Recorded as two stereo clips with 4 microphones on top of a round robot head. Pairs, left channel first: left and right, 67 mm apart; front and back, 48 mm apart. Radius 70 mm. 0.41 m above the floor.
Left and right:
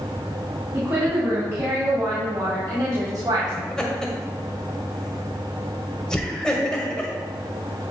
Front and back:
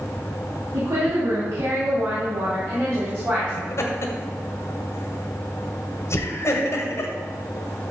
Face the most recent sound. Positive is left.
turn(degrees=10)